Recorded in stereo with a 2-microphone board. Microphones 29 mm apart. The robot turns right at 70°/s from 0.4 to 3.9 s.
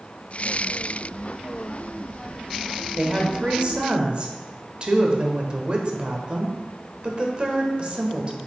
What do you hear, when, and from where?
3.0 s a woman speaking: 140° right, 1.2 m; by 8.4 s 75° right, 1.2 m